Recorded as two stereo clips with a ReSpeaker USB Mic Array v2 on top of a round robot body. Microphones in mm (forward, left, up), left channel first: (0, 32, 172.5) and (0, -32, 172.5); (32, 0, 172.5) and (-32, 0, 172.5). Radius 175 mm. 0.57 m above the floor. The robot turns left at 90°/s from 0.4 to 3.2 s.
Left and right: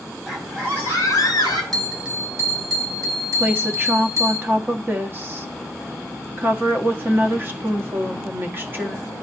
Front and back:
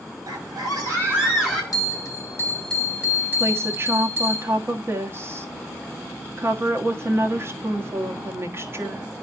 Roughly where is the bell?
Ahead.